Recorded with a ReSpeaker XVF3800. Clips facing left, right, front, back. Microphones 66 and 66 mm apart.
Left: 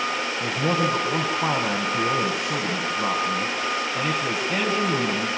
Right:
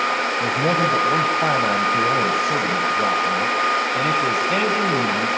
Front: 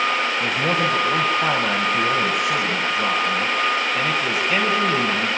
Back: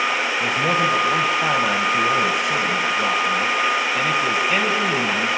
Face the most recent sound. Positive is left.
turn(degrees=-90)